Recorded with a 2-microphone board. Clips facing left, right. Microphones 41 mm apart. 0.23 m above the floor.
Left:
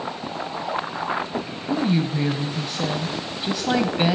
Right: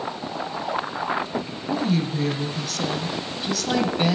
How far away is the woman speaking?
About 1.1 m.